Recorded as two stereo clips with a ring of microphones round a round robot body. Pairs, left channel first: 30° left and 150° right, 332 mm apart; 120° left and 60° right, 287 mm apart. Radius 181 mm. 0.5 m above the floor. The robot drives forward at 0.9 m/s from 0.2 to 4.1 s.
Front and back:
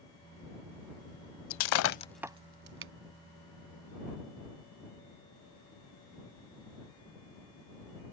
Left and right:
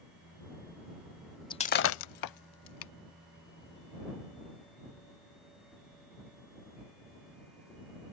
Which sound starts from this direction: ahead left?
Breaking glass, at 1.5 s.